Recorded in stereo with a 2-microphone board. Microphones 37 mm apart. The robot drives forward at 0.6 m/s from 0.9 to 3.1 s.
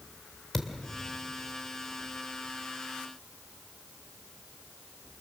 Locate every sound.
0.5 s a thud: 10° left (ahead or behind), 2 m